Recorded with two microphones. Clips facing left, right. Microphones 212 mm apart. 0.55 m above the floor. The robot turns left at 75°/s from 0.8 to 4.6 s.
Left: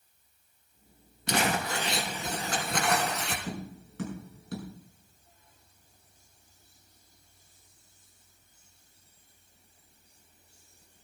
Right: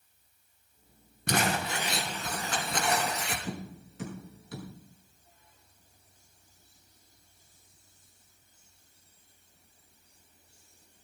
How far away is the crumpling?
About 3.5 m.